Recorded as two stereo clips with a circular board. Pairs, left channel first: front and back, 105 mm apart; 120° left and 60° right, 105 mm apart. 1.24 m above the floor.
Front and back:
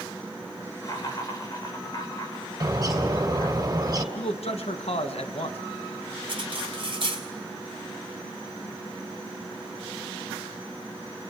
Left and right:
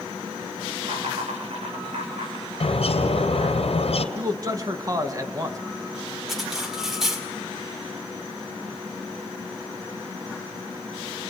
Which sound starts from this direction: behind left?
A bird, at 2.6 s.